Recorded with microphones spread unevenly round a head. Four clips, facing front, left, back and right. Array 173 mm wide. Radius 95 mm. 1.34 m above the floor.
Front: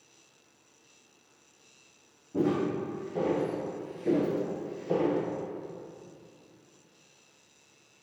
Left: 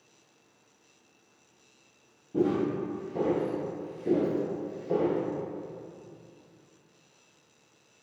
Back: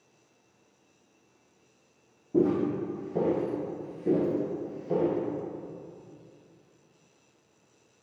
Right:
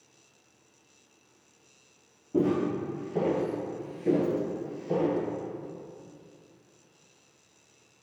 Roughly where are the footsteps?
Behind right.